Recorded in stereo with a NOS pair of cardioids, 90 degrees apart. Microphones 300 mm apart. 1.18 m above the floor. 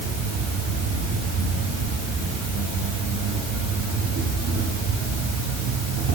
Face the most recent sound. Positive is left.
turn(degrees=-65)